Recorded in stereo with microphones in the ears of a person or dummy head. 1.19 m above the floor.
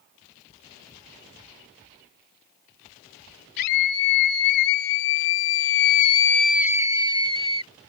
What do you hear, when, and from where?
3.6 s a scream: 55° left (ahead or behind); by 7.7 s 35° right (ahead or behind)